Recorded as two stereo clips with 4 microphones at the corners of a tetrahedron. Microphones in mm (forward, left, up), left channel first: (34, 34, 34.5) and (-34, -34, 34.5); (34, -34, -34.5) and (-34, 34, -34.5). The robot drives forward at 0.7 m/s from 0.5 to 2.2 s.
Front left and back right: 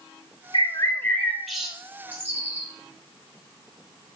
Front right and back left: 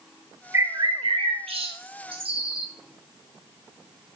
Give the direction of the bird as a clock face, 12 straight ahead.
10 o'clock.